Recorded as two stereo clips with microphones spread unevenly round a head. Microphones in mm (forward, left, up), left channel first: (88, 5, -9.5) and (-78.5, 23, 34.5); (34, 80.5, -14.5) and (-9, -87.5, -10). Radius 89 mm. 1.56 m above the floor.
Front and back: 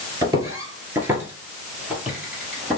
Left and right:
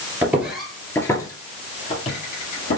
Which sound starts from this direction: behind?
Footsteps, at 0.2 s.